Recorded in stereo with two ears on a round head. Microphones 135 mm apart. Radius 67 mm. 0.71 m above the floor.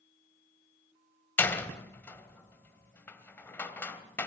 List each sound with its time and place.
1.4 s a door slam: 15° left (ahead or behind), 2 m